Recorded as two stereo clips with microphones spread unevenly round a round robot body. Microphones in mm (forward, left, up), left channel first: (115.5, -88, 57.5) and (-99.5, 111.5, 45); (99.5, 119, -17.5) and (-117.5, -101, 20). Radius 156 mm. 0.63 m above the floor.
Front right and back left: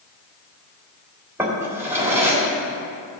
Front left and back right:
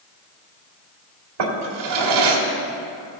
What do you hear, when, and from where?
1.4 s a drawer: 140° right, 1.7 m